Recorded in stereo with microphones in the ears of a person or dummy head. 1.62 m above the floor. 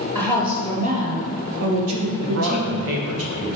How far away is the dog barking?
No dog barking in this recording.